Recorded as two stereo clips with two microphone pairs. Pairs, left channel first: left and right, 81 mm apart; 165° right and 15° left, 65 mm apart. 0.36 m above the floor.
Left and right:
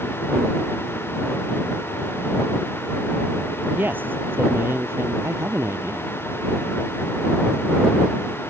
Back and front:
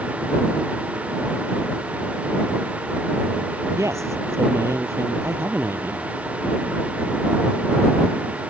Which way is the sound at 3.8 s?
20° right.